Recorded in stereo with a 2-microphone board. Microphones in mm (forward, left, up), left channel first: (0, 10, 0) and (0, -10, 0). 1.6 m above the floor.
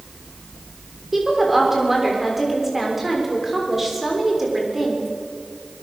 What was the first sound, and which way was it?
A woman speaking, 10° right (ahead or behind).